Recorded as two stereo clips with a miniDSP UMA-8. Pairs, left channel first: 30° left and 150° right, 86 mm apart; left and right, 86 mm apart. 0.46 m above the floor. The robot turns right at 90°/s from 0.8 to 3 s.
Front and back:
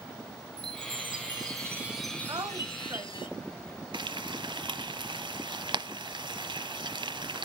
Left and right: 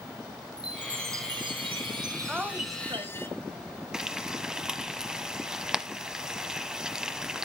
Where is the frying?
175° right, 0.9 m.